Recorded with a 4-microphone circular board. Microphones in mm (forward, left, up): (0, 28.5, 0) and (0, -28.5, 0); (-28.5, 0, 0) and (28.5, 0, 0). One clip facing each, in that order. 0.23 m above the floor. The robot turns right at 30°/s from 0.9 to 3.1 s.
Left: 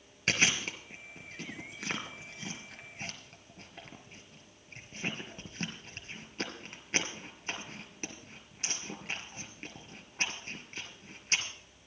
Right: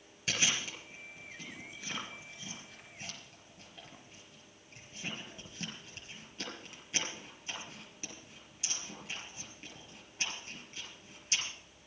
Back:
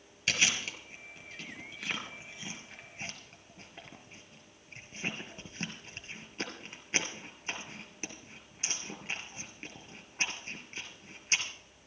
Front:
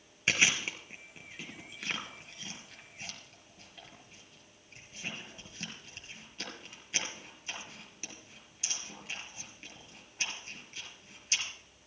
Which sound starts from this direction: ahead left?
Chewing, at 0.3 s.